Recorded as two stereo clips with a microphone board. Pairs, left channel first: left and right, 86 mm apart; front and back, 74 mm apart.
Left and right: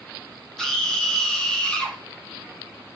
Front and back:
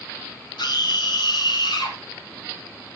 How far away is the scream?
About 7 m.